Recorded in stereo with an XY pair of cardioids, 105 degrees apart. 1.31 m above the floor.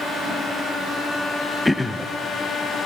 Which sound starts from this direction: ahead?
Throat clearing, at 1.6 s.